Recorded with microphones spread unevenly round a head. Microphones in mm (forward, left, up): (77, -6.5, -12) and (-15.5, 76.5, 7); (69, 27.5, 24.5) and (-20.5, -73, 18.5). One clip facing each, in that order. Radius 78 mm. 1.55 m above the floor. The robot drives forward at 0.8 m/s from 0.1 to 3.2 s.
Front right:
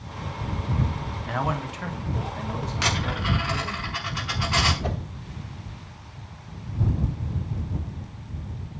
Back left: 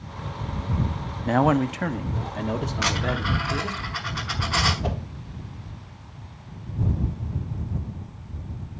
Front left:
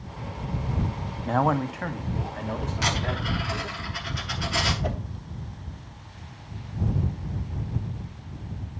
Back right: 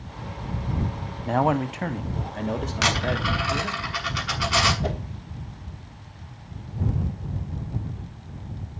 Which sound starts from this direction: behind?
A whoosh, at 4.8 s.